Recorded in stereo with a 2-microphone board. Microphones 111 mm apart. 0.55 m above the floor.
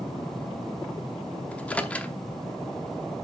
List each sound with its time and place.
1.5 s a microwave: 15° left (ahead or behind), 0.7 m